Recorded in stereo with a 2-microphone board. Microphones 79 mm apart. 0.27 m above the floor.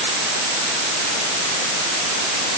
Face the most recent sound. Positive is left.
No sound to turn to.